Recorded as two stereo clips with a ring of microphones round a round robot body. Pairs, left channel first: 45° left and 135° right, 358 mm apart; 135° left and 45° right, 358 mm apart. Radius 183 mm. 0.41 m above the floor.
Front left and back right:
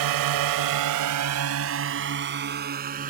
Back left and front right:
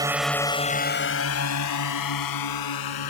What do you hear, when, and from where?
0.0 s a drone: 125° right; by 3.1 s 155° left